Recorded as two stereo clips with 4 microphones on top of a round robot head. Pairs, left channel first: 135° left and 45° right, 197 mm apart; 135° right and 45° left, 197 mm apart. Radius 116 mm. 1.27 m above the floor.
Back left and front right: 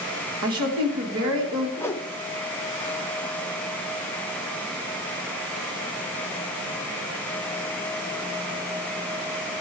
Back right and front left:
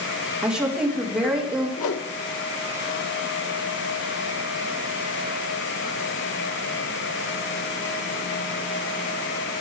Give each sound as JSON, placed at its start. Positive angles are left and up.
{"t": 0.4, "sound": "a woman speaking", "azimuth_deg": -40, "distance_m": 4.0}
{"t": 1.8, "sound": "a whoosh", "azimuth_deg": -145, "distance_m": 1.1}